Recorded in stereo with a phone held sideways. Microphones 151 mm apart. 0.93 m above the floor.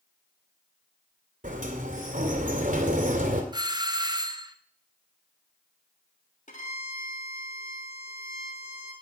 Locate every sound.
1.4 s a sliding door: 60° right (ahead or behind), 2.5 m
3.5 s a doorbell: 30° right (ahead or behind), 1.0 m
6.5 s a violin: 55° left (ahead or behind), 3 m